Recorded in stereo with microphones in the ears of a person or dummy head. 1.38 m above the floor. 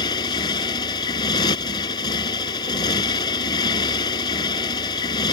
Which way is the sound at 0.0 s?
25° left (ahead or behind).